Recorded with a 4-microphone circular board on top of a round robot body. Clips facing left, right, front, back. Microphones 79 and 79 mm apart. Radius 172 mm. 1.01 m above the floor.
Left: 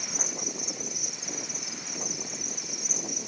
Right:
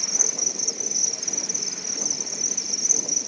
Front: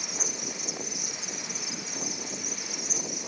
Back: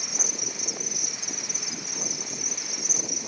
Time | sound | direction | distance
0.0 | an insect | 65° right | 1.1 m